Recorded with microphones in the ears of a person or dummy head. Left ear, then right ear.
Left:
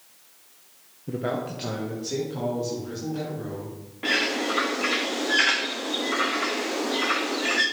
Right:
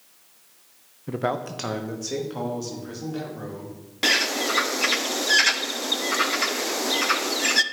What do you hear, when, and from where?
1.1 s a man speaking: 20° right (ahead or behind), 0.5 m; by 3.8 s 50° right (ahead or behind), 4.5 m
4.0 s a bird: 75° right (ahead or behind), 0.6 m